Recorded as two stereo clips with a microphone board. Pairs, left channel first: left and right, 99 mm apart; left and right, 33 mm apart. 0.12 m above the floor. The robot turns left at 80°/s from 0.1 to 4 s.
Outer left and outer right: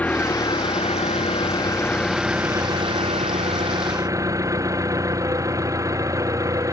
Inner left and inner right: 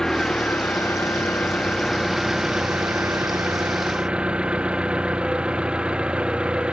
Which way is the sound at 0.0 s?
165° left.